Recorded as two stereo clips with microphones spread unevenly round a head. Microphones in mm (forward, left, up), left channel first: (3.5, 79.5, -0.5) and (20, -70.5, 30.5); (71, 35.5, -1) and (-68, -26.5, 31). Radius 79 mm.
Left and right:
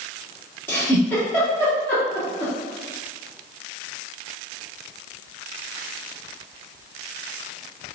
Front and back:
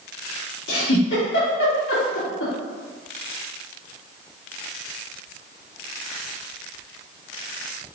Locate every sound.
0.7 s a giggle: 15° left, 3 m